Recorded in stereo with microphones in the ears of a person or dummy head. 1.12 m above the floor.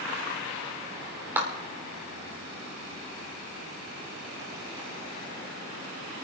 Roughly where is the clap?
Centre.